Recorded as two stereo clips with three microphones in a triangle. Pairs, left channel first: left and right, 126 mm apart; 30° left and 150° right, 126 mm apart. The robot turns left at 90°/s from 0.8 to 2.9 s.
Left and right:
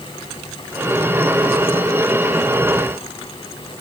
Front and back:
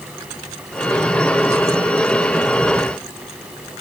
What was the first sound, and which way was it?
Only background noise.